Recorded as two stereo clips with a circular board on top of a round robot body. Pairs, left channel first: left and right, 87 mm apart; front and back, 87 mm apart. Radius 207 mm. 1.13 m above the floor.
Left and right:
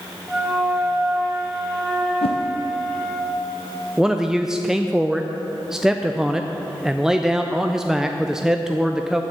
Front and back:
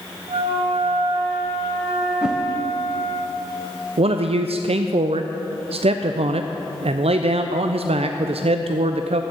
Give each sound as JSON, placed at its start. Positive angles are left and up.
{"t": 0.3, "sound": "a flute", "azimuth_deg": -175, "distance_m": 1.5}
{"t": 2.2, "sound": "a whoosh", "azimuth_deg": 100, "distance_m": 0.5}
{"t": 4.0, "sound": "a man speaking", "azimuth_deg": -175, "distance_m": 0.5}